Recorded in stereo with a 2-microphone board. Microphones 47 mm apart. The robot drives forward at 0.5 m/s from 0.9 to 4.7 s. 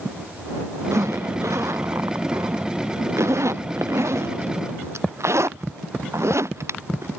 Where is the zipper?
80° right; by 7.2 s 70° right (ahead or behind).